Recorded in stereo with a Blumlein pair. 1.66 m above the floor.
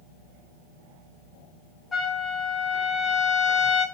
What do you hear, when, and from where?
1.9 s a trumpet: 15° left, 1.2 m